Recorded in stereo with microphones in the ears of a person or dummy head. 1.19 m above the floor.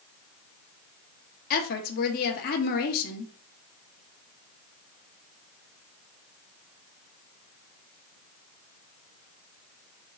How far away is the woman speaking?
About 1.0 m.